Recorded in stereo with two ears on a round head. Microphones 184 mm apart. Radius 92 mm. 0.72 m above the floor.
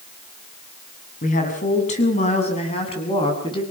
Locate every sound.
1.2 s a woman speaking: 40° left (ahead or behind), 7 m; by 3.6 s 25° left (ahead or behind), 7.5 m